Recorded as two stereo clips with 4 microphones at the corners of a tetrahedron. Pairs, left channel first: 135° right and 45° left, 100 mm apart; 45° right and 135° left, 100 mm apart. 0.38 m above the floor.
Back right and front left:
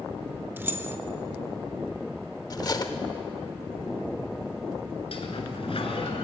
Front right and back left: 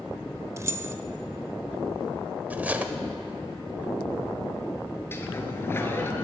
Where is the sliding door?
110° right, 1.3 m.